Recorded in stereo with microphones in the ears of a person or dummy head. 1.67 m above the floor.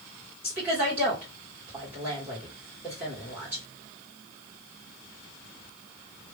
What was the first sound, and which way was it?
A woman speaking, 10° right (ahead or behind).